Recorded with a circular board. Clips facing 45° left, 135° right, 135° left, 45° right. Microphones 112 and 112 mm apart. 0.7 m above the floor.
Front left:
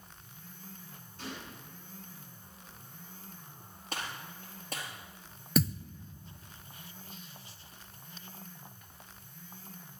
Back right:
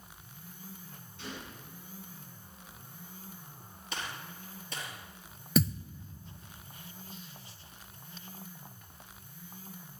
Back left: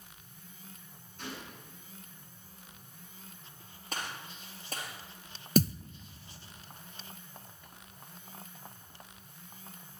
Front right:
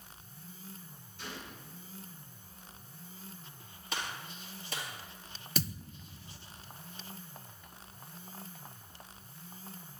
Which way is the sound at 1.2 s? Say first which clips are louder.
Front left 1 dB, back left 2 dB; 95° left.